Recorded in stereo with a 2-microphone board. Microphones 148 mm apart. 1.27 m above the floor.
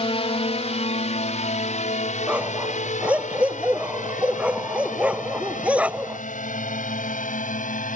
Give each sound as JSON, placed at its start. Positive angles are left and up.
{"t": 0.0, "sound": "a drone", "side_deg": 45}
{"t": 2.3, "sound": "a dog barking", "side_deg": -10}